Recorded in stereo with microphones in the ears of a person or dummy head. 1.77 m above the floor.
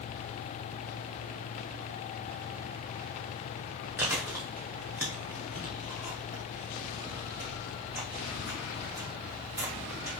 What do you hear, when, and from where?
4.0 s chewing: 15° right (ahead or behind), 0.7 m